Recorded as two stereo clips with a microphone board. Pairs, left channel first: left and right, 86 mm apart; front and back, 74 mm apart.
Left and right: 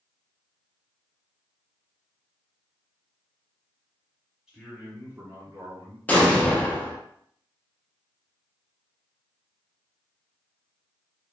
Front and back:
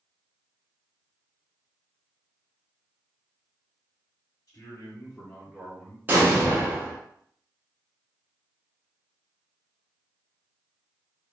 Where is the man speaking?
Straight ahead, 1.0 m; by 6.0 s 115° right, 1.2 m.